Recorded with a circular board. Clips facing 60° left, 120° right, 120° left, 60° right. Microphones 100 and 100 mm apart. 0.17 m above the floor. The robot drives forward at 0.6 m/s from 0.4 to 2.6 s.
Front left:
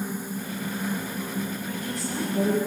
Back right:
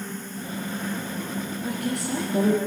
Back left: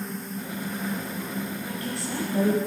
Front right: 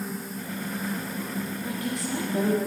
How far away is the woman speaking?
About 7 m.